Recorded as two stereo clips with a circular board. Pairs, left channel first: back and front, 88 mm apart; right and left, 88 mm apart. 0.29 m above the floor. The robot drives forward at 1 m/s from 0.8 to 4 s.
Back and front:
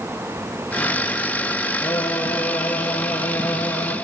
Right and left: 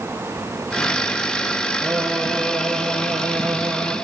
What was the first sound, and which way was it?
Singing, 150° left.